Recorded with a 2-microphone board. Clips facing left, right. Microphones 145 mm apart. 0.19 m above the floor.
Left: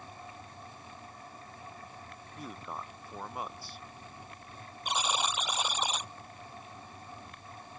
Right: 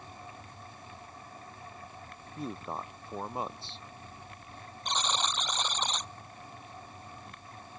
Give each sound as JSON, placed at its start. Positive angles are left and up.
{"t": 2.4, "sound": "a man speaking", "side_deg": -25}
{"t": 4.8, "sound": "a buzzer", "side_deg": 10}